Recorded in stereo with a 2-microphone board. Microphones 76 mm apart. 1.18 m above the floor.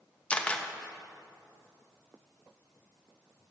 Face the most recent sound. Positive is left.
turn(degrees=15)  # may be behind; listen again after turning